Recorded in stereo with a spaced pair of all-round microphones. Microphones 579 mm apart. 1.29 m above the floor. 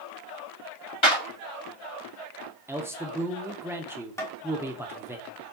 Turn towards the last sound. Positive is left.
turn(degrees=5)  # may be behind; listen again after turning